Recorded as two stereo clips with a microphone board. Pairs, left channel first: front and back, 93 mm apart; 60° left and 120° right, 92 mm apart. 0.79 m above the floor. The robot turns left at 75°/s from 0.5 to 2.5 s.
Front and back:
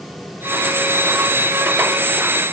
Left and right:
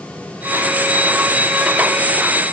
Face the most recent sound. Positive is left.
No sound to turn to.